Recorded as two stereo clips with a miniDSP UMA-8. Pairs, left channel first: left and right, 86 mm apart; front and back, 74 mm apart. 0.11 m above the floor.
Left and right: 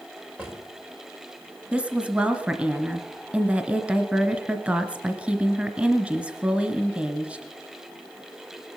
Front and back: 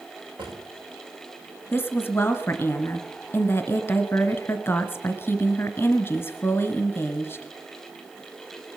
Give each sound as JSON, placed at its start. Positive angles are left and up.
{"t": 0.4, "sound": "a drawer", "azimuth_deg": -165, "distance_m": 7.0}
{"t": 1.7, "sound": "a woman speaking", "azimuth_deg": -25, "distance_m": 1.2}